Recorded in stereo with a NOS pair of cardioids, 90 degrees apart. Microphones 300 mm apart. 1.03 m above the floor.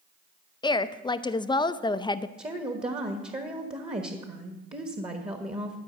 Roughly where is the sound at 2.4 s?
Ahead.